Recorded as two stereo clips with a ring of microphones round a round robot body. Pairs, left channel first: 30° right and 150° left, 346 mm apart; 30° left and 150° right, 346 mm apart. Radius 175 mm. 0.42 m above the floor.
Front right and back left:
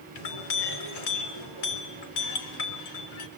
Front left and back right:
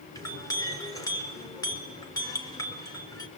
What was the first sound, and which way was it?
A clink, 50° right.